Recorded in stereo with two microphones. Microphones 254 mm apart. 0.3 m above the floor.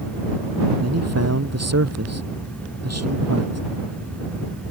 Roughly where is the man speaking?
Right.